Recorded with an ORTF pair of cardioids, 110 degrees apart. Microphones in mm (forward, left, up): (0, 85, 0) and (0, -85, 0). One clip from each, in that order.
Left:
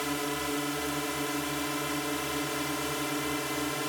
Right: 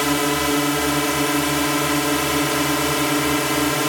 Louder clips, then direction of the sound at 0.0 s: Right 12 dB; 70° right.